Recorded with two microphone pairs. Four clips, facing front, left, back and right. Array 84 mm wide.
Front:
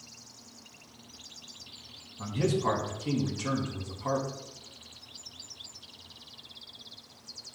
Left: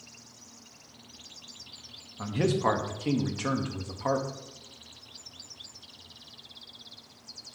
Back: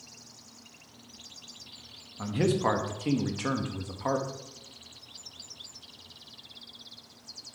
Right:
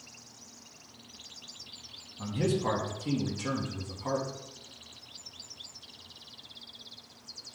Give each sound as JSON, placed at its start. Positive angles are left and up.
{"t": 2.2, "sound": "a man speaking", "azimuth_deg": 130, "distance_m": 1.1}